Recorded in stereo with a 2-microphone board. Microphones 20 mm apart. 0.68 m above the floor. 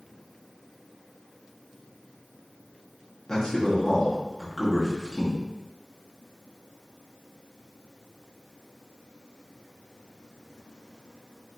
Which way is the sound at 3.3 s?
30° left (ahead or behind).